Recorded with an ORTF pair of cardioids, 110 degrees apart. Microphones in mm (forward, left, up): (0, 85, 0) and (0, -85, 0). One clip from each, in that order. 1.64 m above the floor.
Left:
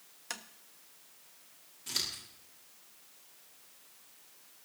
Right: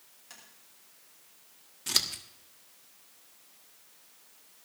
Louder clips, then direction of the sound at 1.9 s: Right 7 dB; 50° right.